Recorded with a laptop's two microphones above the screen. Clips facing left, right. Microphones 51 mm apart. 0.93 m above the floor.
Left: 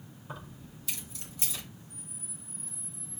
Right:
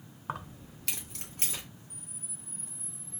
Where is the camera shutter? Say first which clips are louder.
Left 2 dB; 75° right (ahead or behind), 1.8 m.